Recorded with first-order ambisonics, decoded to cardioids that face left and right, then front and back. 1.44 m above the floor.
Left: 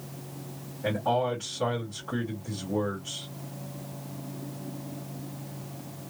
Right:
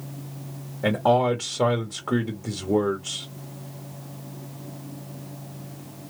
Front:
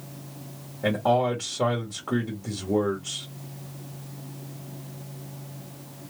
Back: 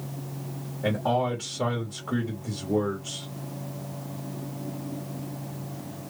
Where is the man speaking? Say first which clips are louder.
Right 6 dB, front 3 dB; 80° right, 0.9 m.